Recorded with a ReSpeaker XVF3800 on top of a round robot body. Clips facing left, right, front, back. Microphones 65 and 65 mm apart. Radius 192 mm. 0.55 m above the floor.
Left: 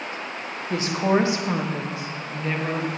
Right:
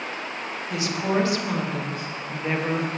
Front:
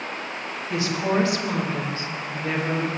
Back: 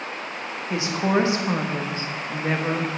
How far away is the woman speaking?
About 1.6 m.